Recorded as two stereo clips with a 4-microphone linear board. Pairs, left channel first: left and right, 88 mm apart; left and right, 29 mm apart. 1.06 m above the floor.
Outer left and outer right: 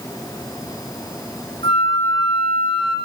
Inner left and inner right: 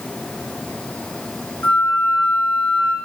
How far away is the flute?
About 2.5 m.